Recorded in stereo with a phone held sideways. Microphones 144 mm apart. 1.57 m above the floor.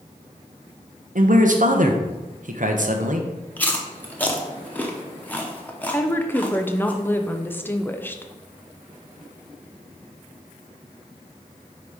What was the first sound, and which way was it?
A man speaking, 65° right (ahead or behind).